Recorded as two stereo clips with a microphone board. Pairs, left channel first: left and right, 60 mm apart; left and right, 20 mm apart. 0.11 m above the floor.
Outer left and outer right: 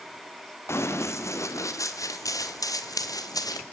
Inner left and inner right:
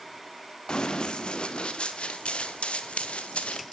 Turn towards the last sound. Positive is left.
turn(degrees=85)